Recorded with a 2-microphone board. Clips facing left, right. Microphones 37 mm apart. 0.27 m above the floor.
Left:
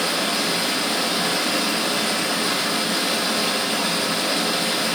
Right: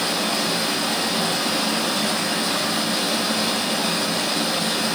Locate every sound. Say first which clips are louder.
0.0 s running water: even; 70° left (ahead or behind), 2.5 m